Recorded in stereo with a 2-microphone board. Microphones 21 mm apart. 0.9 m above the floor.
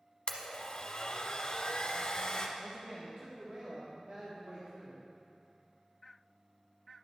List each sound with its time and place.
0.3 s a blender: 50° left (ahead or behind), 1.0 m
2.6 s a man speaking: 75° right (ahead or behind), 1.5 m